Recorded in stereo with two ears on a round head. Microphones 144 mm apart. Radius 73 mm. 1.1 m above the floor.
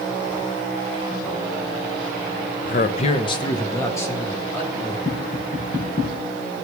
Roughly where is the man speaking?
Left.